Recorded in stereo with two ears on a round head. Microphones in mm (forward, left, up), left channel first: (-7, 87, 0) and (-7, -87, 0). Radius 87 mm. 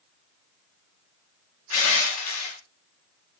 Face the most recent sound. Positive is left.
turn(degrees=80)